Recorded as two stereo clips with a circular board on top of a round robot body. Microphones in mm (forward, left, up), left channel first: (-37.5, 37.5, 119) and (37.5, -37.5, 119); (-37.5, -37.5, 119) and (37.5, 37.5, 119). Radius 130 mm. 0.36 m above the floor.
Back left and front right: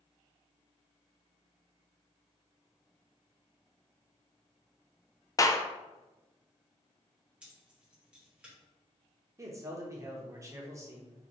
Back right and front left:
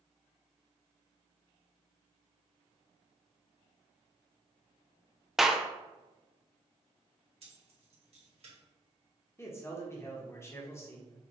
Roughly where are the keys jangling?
Ahead left.